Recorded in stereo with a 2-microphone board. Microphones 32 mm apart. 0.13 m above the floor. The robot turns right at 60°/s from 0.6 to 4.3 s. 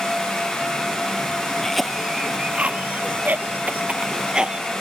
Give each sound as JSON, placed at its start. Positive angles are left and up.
{"t": 1.6, "sound": "a cough", "side_deg": 10}